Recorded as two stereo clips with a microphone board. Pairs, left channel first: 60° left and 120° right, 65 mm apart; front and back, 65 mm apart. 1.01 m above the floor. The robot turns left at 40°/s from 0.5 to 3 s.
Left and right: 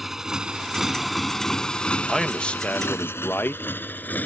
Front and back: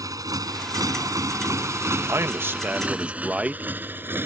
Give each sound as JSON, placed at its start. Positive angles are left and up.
{"t": 0.0, "sound": "a motorcycle", "azimuth_deg": 155}
{"t": 2.1, "sound": "a man speaking", "azimuth_deg": 145}